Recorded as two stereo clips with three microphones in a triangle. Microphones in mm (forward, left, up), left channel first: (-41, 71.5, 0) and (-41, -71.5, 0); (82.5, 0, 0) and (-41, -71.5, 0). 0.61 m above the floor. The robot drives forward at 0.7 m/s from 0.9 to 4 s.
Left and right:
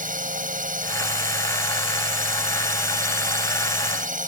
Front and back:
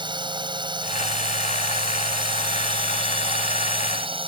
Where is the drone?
95° right; by 4.3 s 100° right.